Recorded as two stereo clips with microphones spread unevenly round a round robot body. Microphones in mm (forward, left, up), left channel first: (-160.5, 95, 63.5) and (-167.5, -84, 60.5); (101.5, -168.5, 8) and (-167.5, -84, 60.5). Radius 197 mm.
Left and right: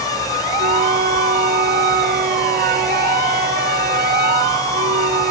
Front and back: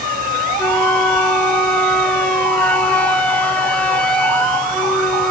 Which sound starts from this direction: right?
A flute, at 0.6 s.